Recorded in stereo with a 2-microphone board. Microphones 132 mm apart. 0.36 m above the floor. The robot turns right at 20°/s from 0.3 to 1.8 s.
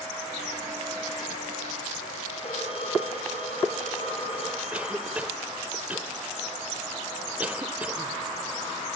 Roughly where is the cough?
Centre.